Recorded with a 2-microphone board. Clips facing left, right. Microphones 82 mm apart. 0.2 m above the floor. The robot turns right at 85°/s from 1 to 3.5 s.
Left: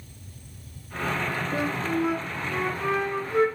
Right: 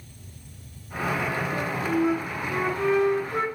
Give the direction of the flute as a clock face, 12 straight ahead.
7 o'clock.